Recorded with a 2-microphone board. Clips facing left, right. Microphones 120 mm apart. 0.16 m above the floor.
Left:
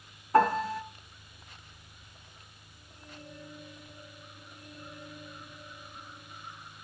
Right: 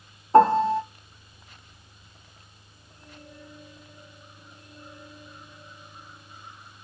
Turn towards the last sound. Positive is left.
turn(degrees=-30)  # may be behind; listen again after turning